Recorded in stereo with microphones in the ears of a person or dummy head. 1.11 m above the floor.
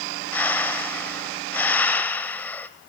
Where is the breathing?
10° left (ahead or behind), 1.4 m.